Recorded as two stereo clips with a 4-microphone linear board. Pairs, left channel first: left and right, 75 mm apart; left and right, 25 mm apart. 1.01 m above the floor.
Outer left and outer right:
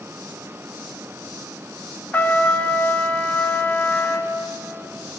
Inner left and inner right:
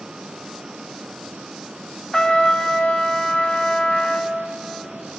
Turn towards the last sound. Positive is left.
turn(degrees=25)  # may be behind; listen again after turning